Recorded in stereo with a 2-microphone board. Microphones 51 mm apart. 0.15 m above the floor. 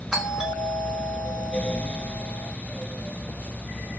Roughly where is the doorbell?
Centre.